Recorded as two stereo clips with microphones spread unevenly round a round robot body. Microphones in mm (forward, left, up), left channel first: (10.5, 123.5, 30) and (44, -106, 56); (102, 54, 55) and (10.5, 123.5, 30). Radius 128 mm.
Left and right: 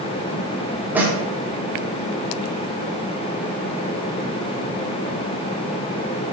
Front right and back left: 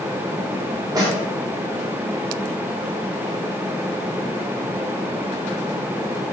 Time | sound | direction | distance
0.9 | a snare drum | 170° right | 0.6 m